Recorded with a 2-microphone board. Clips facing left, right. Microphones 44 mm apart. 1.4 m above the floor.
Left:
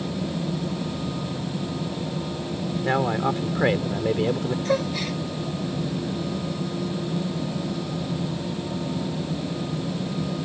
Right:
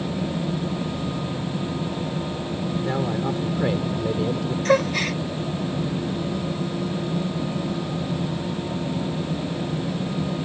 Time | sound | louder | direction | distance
2.9 | a man speaking | left 4 dB | 60° left (ahead or behind) | ?
4.7 | a gasp | right 7 dB | 60° right (ahead or behind) | ?